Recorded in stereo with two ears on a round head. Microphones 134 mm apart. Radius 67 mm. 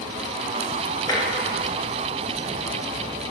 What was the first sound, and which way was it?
Tapping, 25° left (ahead or behind).